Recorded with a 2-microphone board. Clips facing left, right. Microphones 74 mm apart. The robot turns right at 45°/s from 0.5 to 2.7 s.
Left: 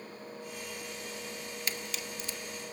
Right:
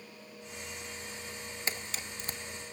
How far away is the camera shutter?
About 0.9 m.